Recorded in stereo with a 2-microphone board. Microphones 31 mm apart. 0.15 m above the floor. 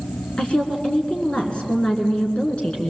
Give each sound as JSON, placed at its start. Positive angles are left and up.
{"t": 0.4, "sound": "a woman speaking", "side_deg": 35, "distance_m": 1.8}